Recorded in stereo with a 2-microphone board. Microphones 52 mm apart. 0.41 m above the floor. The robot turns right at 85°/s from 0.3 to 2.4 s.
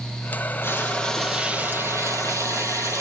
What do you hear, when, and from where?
0.6 s frying: 130° left, 2.5 m; by 3.0 s 80° right, 2.5 m